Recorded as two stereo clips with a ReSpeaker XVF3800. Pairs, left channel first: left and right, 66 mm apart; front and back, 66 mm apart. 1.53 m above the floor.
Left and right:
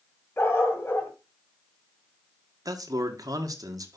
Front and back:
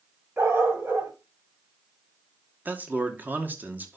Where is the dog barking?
135° left, 2 m.